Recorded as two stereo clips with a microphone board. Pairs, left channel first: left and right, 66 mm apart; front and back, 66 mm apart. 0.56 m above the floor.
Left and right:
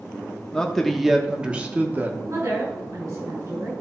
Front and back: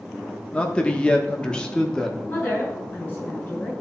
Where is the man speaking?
35° left, 1.1 m; by 2.2 s 70° right, 1.2 m.